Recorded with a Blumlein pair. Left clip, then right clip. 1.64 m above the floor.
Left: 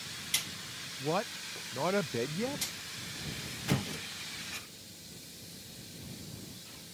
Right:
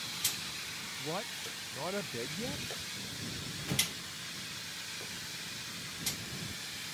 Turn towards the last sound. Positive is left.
turn(degrees=20)